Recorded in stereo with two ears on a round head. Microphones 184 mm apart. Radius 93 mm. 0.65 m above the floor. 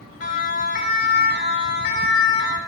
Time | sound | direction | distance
0.2 | a siren | 40° left (ahead or behind) | 7.5 m